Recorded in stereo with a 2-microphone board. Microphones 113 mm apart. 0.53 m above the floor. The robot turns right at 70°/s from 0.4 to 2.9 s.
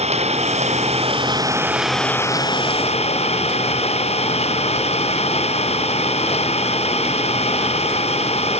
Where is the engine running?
105° right; by 8.6 s 70° left.